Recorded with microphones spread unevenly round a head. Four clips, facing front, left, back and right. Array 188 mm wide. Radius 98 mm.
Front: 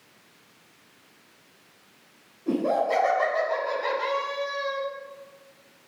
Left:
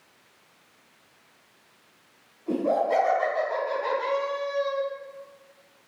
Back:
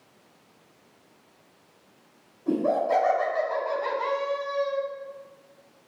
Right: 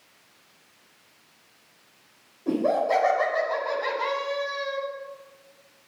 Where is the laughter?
90° right, 5 m; by 4.8 s 80° right, 6.5 m.